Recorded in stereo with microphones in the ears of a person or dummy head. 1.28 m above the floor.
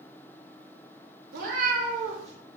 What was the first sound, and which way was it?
A cat meowing, 55° right (ahead or behind).